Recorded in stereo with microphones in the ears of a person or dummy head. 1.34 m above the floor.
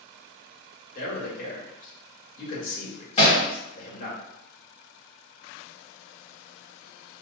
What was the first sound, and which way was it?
A man speaking, 50° left (ahead or behind).